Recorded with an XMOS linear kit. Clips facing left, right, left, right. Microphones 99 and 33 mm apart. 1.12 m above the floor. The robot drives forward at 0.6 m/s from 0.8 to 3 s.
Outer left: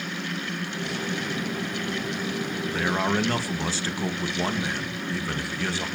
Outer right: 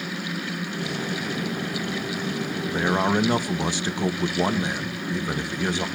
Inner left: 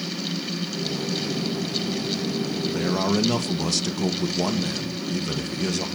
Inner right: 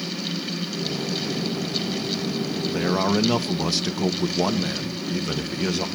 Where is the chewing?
I don't hear chewing.